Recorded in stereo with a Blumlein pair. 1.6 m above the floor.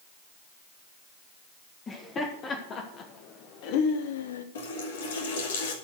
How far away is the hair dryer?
I don't hear a hair dryer.